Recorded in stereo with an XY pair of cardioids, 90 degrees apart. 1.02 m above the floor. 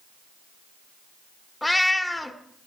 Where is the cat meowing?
10° left, 1.4 m.